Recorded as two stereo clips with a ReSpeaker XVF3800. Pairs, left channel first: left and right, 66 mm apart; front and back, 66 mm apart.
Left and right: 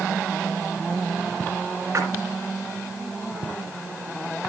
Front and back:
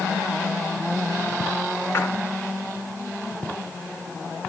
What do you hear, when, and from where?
1.9 s a splash: 50° right, 2.5 m